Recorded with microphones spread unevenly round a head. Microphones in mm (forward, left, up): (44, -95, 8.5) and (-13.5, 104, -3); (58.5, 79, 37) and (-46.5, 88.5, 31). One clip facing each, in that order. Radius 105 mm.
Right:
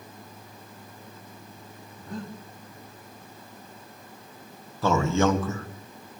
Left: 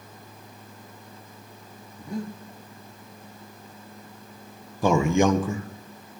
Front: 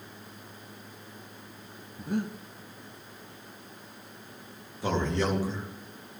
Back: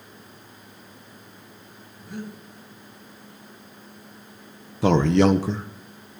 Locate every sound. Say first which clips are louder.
2.0 s breathing: left 5 dB, front 5 dB; 30° left, 1.5 m
4.8 s a man speaking: left 3 dB, back 11 dB; straight behind, 1.2 m